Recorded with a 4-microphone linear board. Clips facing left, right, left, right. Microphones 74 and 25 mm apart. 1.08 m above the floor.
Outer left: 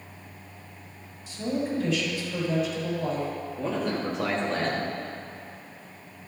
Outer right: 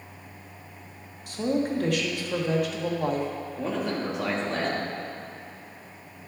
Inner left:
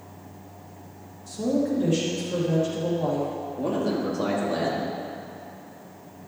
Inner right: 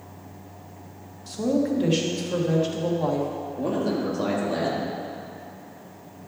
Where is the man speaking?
5° right (ahead or behind), 2 m.